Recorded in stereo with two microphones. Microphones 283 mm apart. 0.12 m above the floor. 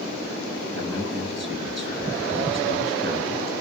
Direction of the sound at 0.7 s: 40° right (ahead or behind).